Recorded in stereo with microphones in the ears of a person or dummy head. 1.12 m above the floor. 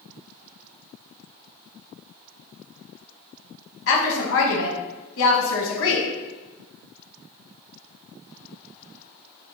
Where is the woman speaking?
65° left (ahead or behind), 1.3 m.